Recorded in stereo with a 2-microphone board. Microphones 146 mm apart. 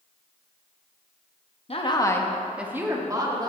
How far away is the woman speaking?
About 0.9 m.